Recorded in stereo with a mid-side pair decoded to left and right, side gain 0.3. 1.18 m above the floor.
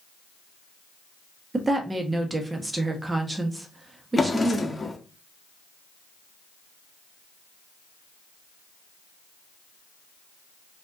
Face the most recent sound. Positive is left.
turn(degrees=30)